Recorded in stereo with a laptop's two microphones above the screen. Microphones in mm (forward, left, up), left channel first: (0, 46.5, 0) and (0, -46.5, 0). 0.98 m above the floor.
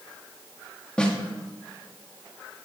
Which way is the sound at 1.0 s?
10° left (ahead or behind).